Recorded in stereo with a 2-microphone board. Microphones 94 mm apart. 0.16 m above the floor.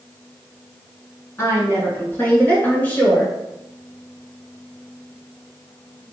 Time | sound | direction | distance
1.4 | a woman speaking | 30° left (ahead or behind) | 1.9 m